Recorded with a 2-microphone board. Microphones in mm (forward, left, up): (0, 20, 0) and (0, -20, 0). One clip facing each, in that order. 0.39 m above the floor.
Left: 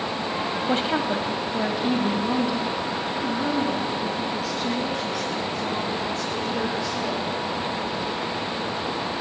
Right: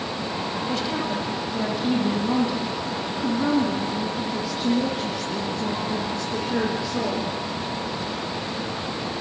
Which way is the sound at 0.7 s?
40° left (ahead or behind).